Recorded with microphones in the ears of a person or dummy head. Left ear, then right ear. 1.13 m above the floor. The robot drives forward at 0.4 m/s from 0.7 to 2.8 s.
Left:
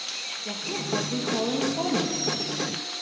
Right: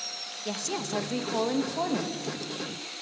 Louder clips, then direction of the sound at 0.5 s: Even; 80° right.